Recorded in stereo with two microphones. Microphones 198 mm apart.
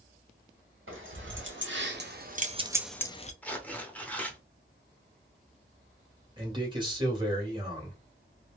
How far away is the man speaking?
About 1.6 m.